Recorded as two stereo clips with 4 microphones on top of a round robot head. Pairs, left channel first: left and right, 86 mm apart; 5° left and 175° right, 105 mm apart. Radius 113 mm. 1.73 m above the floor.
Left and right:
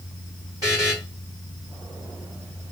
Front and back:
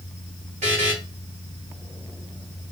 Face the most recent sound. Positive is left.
turn(degrees=-155)